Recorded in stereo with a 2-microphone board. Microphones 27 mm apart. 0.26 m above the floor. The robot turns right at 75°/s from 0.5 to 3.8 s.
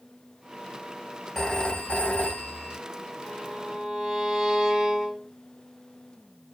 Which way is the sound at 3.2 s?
160° left.